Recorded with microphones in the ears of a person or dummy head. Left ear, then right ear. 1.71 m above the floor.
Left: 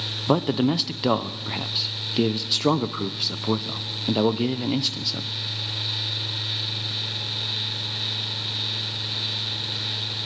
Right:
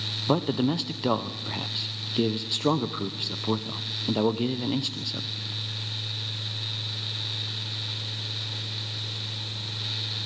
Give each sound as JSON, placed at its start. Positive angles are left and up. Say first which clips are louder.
{"t": 0.3, "sound": "a man speaking", "louder": "left 4 dB", "side_deg": 5, "distance_m": 0.8}